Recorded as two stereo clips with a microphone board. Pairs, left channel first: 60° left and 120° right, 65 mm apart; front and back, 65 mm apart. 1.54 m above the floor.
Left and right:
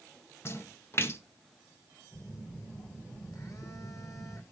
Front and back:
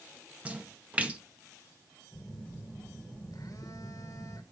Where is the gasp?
I don't hear a gasp.